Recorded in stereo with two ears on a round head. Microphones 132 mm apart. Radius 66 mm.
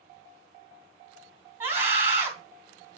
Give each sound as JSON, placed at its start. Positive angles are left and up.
{"t": 1.6, "sound": "a scream", "side_deg": -15, "distance_m": 3.0}